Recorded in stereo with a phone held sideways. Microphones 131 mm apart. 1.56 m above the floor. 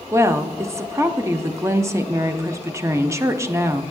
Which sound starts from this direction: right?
A woman speaking, at 0.1 s.